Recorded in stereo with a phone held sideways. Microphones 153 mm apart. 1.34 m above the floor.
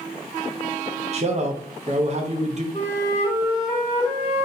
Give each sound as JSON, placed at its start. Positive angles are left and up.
{"t": 1.1, "sound": "a man speaking", "side_deg": -45, "distance_m": 0.6}
{"t": 2.7, "sound": "a flute", "side_deg": 45, "distance_m": 1.3}